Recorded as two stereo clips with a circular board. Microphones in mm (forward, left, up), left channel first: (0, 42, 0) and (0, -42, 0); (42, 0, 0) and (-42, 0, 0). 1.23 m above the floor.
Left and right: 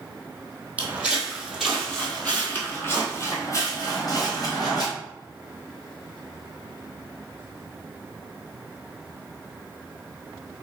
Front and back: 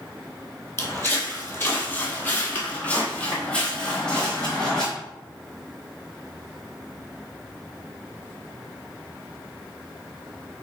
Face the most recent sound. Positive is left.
turn(degrees=80)